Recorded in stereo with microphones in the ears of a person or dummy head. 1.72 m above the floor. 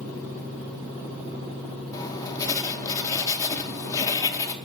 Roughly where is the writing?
Centre.